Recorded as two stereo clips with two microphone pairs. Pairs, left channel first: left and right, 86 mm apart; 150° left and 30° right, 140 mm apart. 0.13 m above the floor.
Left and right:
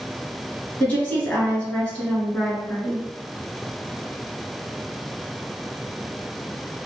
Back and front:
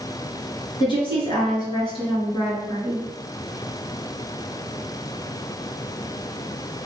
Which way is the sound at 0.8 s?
145° left.